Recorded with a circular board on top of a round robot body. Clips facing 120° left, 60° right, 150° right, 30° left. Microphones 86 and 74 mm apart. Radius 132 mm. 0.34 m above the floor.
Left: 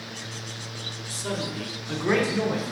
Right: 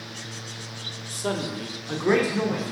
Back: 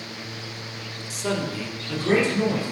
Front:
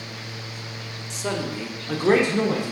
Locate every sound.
1.1 s a man speaking: 65° right, 1.1 m; by 2.7 s 40° left, 1.6 m